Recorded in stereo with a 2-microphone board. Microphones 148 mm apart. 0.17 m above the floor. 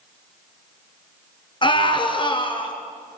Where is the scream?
35° left (ahead or behind), 3.5 m.